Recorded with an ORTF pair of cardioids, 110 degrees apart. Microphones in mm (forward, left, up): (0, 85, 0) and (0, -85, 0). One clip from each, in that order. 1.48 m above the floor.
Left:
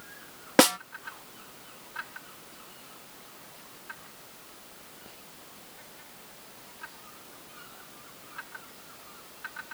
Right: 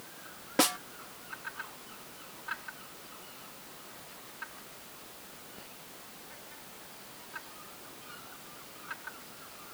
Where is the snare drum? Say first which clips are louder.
Left 7 dB; 55° left.